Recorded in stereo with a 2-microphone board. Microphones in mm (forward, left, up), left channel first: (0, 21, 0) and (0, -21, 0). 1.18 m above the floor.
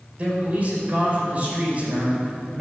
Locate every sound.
0.2 s a man speaking: 35° right (ahead or behind), 5.5 m